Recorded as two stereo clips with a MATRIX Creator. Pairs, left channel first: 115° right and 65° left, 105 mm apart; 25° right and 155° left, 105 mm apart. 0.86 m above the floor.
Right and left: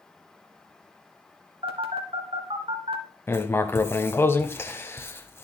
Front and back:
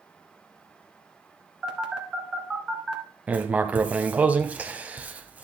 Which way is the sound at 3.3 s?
145° right.